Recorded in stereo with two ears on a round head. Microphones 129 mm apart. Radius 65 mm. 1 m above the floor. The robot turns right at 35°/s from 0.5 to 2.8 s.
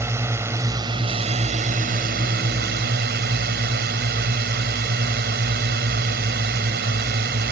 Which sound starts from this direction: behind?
A drone, at 0.0 s.